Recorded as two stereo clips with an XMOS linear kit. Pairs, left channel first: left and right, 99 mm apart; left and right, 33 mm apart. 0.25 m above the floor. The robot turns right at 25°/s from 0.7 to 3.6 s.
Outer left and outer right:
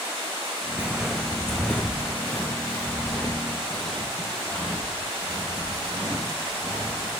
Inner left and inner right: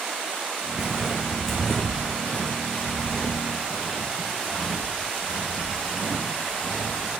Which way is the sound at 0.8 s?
10° right (ahead or behind).